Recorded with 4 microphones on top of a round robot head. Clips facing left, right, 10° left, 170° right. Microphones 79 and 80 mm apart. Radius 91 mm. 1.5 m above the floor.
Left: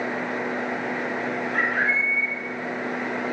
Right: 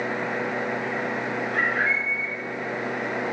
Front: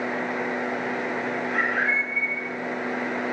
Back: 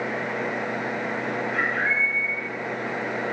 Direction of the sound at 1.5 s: 45° left.